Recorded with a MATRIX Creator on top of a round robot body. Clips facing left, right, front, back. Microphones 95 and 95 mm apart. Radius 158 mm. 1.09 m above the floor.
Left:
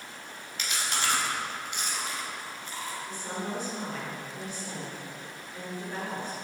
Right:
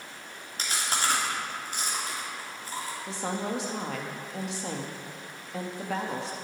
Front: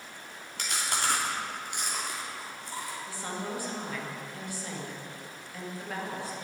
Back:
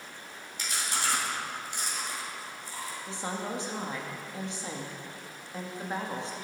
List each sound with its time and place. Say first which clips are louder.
0.6 s chewing: right 2 dB, front 1 dB; 35° right, 3.5 m
3.1 s a woman speaking: right 6 dB, back 4 dB; 110° right, 2.0 m